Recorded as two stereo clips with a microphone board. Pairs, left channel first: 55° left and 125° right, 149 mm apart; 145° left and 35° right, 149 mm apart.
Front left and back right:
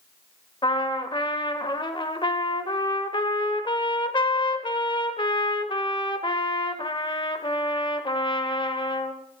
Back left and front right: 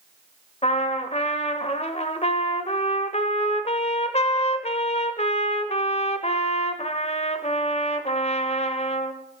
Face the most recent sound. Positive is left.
turn(degrees=110)